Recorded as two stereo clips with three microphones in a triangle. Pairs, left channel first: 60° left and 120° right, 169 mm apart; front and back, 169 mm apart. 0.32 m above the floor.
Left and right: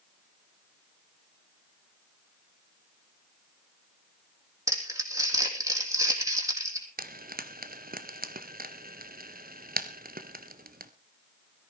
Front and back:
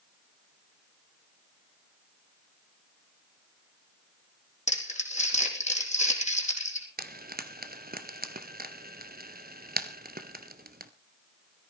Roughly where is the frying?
Behind right.